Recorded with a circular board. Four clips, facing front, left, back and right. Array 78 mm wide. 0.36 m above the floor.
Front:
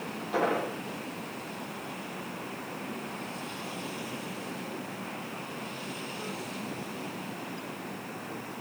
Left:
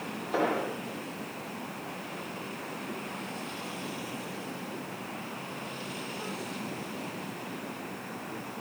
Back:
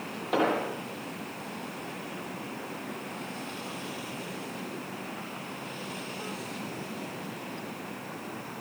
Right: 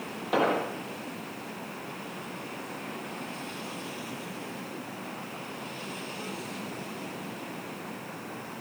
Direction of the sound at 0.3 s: 130° right.